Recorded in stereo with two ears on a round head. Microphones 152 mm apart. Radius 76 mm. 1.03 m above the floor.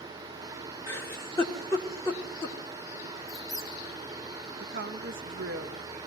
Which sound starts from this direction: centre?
A giggle, at 0.9 s.